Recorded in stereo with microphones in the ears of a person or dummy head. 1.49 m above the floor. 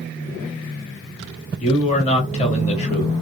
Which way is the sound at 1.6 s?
35° left (ahead or behind).